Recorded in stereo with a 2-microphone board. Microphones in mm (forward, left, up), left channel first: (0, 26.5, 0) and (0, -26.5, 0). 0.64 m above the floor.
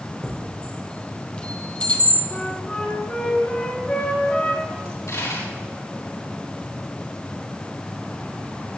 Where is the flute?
25° left (ahead or behind), 4 m.